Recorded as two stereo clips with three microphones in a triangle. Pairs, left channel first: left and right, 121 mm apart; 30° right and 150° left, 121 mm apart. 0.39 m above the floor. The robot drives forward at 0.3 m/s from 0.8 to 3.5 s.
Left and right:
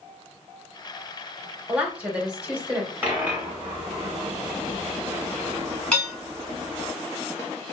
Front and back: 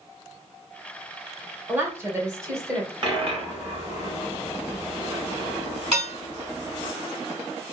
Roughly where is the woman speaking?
Behind right.